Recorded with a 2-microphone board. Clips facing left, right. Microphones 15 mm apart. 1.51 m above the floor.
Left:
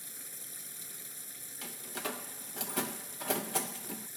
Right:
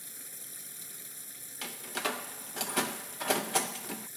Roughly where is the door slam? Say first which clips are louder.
Right 5 dB; right.